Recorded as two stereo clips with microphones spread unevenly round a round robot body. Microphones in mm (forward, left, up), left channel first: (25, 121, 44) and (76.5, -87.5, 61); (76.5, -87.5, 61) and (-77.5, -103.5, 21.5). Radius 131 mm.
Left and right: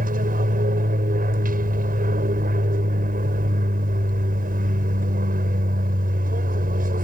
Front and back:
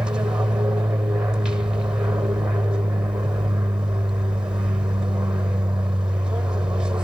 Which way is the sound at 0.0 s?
110° right.